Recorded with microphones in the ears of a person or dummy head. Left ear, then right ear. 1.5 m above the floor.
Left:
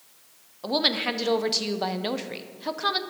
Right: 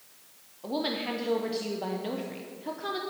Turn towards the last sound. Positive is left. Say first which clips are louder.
# left 7 dB
turn(degrees=40)  # may be behind; listen again after turning